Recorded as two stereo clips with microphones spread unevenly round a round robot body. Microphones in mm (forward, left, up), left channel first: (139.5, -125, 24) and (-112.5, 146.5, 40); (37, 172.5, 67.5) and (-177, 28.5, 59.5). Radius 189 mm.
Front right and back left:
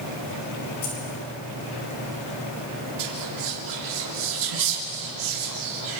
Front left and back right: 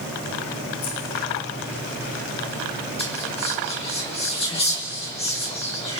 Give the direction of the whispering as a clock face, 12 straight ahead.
9 o'clock.